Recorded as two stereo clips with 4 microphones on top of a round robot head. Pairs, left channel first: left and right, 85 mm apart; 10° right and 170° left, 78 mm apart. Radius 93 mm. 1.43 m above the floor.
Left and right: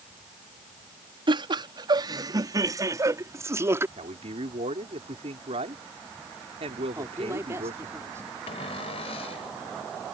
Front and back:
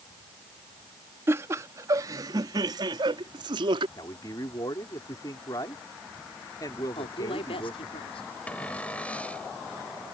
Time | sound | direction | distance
1.3 | laughter | 125° right | ?
4.0 | a man speaking | 65° right | ?
7.0 | a woman speaking | 25° right | ?
8.5 | a cupboard door | 65° left | ?